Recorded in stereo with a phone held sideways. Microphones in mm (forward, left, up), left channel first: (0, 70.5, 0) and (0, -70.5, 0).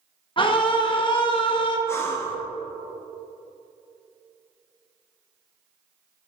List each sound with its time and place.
0.4 s a scream: 35° left (ahead or behind), 1.5 m
1.9 s breathing: 20° left (ahead or behind), 1.1 m